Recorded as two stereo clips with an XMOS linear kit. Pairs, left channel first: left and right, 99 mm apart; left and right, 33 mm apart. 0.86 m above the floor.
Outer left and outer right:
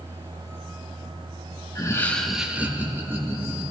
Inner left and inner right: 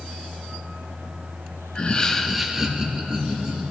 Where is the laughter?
35° left (ahead or behind), 0.7 m; by 3.6 s 25° right (ahead or behind), 2 m.